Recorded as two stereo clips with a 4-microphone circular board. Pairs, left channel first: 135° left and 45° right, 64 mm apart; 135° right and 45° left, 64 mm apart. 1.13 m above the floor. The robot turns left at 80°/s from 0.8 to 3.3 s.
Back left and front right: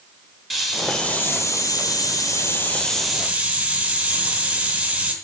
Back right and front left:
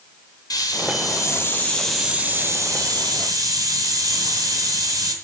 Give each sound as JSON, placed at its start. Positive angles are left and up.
{"t": 0.5, "sound": "a hiss", "azimuth_deg": -130, "distance_m": 2.5}